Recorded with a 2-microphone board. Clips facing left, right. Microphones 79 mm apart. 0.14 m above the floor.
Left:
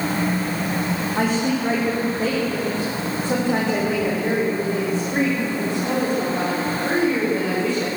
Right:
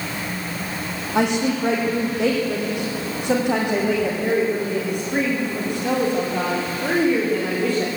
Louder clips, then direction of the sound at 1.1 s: Right 3 dB; 80° right.